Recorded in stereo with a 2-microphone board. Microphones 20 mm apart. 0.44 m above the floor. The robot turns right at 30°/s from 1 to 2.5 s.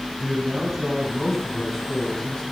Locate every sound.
0.2 s a man speaking: 10° right, 3.5 m; by 2.4 s 30° left, 3.5 m